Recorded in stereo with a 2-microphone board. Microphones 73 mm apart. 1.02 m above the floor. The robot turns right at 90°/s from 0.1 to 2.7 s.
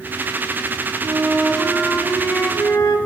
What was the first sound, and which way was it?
A flute, 50° right.